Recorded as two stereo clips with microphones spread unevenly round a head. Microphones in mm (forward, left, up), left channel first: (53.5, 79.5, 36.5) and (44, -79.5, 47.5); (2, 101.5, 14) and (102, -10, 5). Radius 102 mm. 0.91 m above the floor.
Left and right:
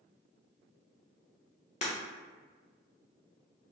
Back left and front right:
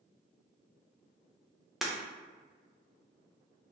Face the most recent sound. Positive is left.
turn(degrees=45)